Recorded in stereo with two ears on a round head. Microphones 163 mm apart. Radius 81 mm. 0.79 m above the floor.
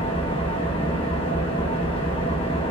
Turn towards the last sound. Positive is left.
turn(degrees=35)  # may be behind; listen again after turning